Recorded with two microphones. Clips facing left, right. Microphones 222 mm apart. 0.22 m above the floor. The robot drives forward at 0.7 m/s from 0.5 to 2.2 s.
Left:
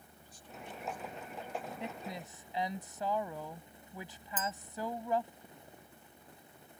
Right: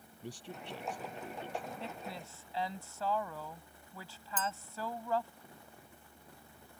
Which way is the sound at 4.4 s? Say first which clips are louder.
Even; 10° left (ahead or behind).